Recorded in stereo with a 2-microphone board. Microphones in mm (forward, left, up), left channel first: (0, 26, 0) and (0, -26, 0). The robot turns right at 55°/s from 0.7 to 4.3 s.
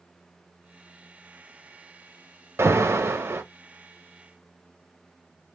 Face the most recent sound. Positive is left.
turn(degrees=-15)